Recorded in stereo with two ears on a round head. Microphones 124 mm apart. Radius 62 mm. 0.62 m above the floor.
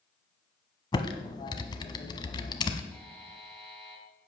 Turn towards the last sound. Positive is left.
turn(degrees=5)  # may be behind; listen again after turning